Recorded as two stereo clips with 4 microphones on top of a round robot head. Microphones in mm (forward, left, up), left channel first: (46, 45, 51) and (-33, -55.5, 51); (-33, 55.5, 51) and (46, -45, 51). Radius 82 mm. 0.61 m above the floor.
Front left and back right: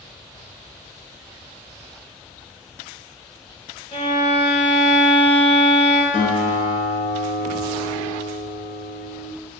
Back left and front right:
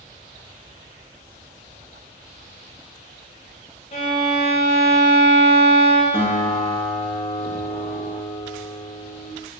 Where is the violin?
95° left, 0.5 m.